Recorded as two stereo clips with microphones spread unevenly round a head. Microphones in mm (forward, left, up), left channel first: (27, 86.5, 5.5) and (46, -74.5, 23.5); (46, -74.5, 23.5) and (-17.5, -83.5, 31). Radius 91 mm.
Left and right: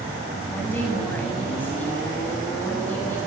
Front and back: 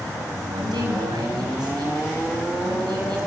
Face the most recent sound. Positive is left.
turn(degrees=180)